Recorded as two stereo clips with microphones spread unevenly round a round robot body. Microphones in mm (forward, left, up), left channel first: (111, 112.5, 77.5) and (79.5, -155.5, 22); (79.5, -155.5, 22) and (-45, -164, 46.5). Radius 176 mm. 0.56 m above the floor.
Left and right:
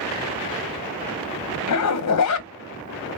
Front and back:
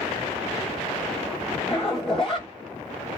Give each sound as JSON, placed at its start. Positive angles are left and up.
{"t": 1.7, "sound": "a zipper", "azimuth_deg": 80, "distance_m": 0.8}